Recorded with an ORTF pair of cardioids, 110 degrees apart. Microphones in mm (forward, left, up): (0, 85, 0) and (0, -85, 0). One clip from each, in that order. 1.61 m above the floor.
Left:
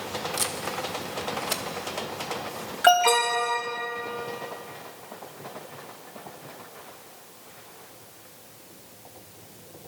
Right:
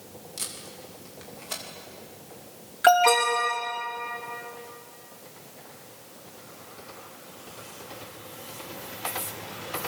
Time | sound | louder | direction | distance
0.4 | tape being pulled | left 9 dB | 35° left | 2.5 m
2.8 | an alarm | even | straight ahead | 5 m